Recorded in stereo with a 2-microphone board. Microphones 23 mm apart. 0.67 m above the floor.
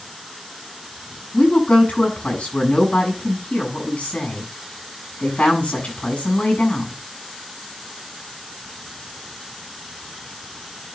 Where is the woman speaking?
65° left (ahead or behind), 6 m.